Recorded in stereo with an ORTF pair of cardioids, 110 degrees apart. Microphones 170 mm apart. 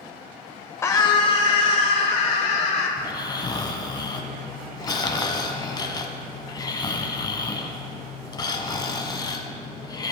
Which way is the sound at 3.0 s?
25° left.